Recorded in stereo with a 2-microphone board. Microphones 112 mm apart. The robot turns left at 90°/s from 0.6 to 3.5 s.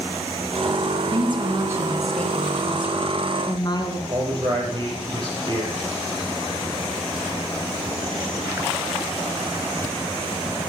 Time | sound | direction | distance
1.1 | a woman speaking | 90° right | 2 m
4.1 | a man speaking | 40° right (ahead or behind) | 5.5 m